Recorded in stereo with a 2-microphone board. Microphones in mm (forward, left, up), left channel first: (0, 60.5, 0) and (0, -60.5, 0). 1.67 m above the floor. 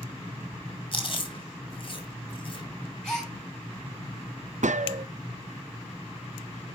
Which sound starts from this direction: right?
A gunshot, at 4.6 s.